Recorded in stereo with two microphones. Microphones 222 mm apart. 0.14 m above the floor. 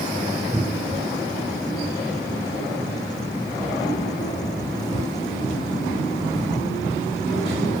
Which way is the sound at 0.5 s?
15° right (ahead or behind).